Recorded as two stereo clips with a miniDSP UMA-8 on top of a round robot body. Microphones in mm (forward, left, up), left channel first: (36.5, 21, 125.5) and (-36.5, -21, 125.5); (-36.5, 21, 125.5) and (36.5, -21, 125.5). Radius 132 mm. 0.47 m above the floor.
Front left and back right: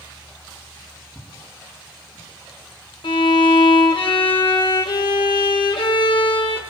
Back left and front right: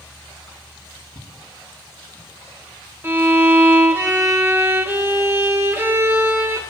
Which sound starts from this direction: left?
Footsteps, at 1.1 s.